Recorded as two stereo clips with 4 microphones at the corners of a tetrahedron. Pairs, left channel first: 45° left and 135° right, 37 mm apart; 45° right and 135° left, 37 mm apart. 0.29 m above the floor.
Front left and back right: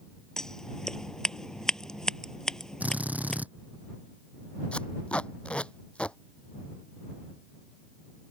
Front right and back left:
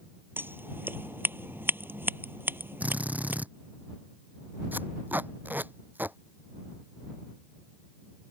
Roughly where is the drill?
Behind.